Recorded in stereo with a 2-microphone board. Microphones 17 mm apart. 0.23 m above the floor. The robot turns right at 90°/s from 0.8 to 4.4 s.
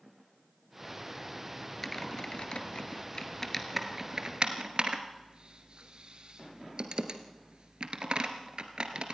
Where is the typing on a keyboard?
10° left (ahead or behind), 1.7 m; by 9.2 s 60° right (ahead or behind), 1.7 m.